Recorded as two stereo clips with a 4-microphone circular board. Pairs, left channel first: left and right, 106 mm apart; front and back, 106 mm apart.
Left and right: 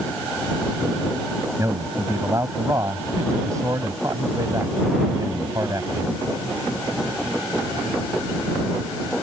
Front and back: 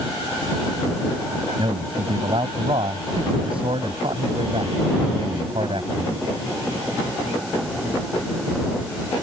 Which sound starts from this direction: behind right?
A man speaking, at 1.6 s.